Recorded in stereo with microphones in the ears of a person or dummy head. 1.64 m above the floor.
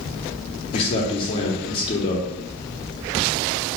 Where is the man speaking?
30° left (ahead or behind), 0.7 m.